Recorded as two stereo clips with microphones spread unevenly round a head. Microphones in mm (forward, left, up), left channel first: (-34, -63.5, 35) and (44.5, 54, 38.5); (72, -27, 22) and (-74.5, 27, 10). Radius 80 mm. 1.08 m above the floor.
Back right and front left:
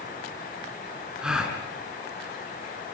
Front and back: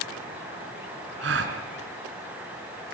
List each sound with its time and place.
1.2 s a gasp: 140° left, 4 m